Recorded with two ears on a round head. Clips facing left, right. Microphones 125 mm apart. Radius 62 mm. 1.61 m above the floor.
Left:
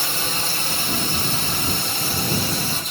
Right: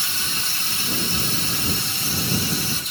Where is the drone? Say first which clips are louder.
Left 6 dB; 45° left (ahead or behind).